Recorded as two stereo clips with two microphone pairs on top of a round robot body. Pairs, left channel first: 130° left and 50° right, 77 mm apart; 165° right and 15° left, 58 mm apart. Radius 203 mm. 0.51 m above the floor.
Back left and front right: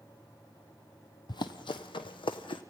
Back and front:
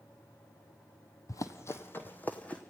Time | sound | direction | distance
1.3 | running footsteps | 165° left | 1.0 m